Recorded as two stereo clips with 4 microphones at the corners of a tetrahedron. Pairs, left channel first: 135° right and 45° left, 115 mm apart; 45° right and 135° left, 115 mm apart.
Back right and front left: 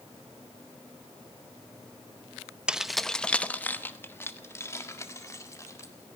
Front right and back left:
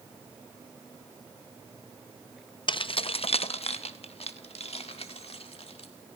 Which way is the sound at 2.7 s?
35° right.